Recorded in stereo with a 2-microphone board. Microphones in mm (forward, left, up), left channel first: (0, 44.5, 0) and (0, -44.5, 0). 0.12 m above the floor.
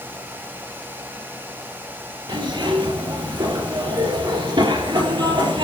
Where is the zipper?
65° right (ahead or behind), 4 m.